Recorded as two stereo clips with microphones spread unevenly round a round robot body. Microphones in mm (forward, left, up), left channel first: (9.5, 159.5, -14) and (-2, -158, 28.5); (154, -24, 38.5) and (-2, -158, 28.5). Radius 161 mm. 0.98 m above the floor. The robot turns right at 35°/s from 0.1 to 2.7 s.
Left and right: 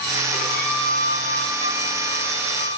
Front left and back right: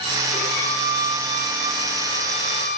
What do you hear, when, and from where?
0.3 s a violin: 15° left, 8 m; by 2.8 s 100° left, 8 m